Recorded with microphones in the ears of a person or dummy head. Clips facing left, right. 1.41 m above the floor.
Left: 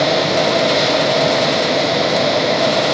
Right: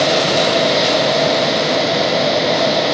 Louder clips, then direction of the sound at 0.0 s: Even; centre (ahead or behind).